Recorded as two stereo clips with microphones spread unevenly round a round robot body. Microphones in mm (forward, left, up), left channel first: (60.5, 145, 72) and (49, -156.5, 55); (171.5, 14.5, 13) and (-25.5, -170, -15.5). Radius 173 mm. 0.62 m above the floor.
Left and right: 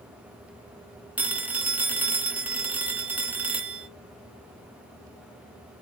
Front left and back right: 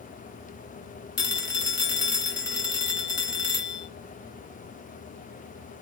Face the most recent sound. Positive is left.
turn(degrees=-10)